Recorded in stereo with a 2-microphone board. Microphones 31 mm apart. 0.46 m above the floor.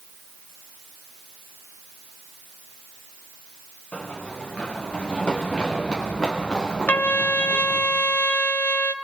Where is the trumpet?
65° left (ahead or behind), 0.7 m.